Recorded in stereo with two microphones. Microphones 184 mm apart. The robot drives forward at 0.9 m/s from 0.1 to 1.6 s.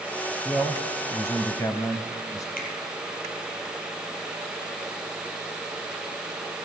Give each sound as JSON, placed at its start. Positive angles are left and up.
{"t": 0.5, "sound": "a man speaking", "side_deg": 15, "distance_m": 1.3}
{"t": 2.6, "sound": "a finger snap", "side_deg": 55, "distance_m": 4.0}